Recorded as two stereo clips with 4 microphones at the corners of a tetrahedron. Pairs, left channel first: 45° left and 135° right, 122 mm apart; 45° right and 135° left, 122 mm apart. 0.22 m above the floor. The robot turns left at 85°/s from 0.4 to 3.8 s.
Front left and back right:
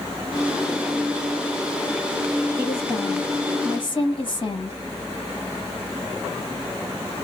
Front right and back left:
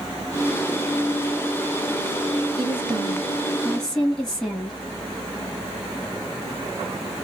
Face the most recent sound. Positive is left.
turn(degrees=40)